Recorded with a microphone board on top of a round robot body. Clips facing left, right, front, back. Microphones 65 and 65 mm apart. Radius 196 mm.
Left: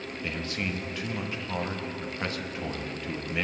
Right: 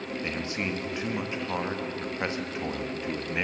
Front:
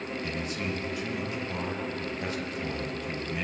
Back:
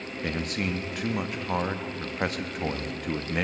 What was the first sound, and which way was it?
A man speaking, 160° right.